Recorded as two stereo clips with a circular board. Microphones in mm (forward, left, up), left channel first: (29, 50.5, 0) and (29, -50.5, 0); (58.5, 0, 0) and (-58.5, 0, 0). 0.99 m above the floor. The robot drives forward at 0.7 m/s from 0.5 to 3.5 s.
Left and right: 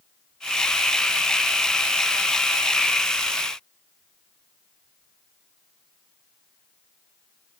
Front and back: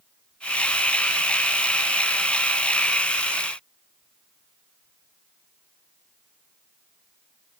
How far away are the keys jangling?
I don't hear keys jangling.